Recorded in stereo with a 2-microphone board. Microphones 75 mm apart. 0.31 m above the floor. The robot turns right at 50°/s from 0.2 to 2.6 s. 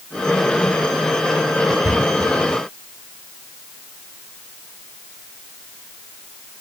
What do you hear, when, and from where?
1.8 s a cupboard door: 35° right (ahead or behind), 4.5 m; by 2.0 s 45° right (ahead or behind), 4.5 m